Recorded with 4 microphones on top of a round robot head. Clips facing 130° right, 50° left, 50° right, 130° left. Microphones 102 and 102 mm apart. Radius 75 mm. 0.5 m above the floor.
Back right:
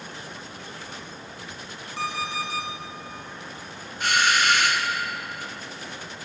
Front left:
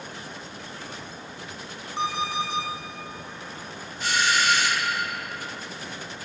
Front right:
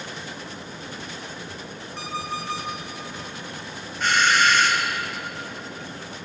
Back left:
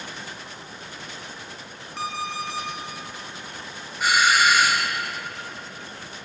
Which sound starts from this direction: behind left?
An alarm clock, at 2.0 s.